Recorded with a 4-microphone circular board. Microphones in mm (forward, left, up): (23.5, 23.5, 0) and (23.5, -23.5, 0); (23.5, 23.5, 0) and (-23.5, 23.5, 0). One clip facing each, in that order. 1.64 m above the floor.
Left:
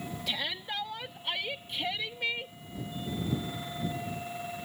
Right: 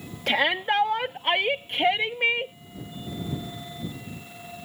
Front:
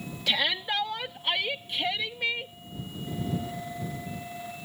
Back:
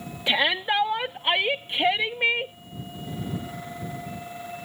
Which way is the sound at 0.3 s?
120° right.